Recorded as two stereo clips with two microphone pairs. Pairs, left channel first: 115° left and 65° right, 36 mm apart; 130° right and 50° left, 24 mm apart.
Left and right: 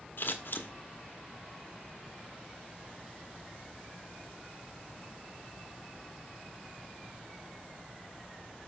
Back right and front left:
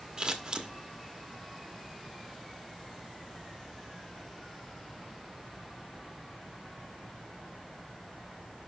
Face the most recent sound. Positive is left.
turn(degrees=105)